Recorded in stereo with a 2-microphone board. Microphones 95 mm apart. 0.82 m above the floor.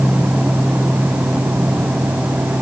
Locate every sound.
Only background noise.